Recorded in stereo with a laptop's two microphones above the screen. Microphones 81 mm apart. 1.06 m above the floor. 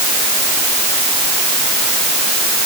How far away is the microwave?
I don't hear a microwave.